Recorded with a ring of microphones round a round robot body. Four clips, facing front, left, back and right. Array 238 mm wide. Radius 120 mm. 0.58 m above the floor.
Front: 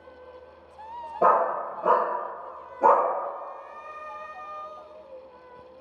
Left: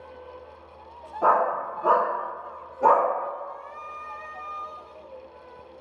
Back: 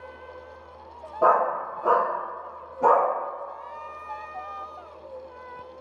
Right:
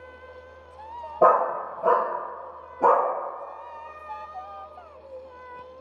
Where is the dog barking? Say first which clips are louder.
Right 2 dB, back 1 dB; 75° right, 0.6 m; by 3.1 s 80° right, 1.7 m.